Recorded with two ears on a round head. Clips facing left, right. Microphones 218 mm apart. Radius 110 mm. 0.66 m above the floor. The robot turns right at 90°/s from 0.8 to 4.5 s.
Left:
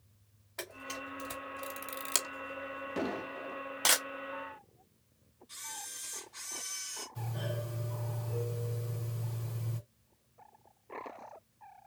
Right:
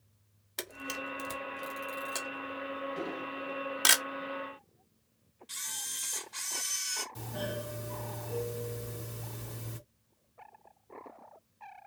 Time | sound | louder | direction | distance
0.6 | a camera shutter | right 3 dB | 45° right (ahead or behind) | 1.5 m
3.0 | an explosion | left 2 dB | 100° left | 2.5 m
5.5 | a camera shutter | left 1 dB | 80° right | 1.5 m
7.2 | a doorbell | right 2 dB | 60° right (ahead or behind) | 3 m